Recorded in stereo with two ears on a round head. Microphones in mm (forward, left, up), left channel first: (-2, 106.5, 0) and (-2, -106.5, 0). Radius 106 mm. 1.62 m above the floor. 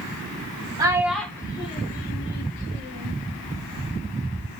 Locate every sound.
0.8 s a child speaking: 15° right (ahead or behind), 0.8 m; by 3.1 s 55° left (ahead or behind), 1.5 m